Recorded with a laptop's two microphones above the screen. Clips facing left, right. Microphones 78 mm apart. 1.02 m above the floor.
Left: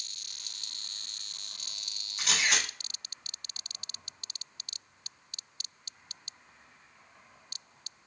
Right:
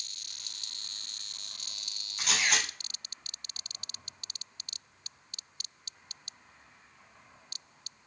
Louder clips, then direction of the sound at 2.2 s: Even; 5° left (ahead or behind).